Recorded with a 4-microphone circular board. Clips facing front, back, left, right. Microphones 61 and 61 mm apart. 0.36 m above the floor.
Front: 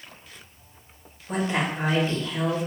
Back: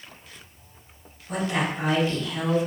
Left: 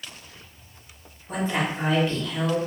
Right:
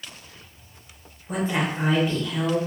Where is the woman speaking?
10° right, 0.9 m.